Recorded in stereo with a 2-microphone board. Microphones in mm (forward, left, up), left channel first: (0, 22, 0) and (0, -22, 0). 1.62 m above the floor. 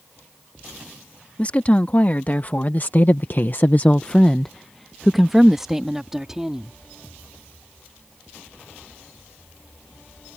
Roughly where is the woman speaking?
Left.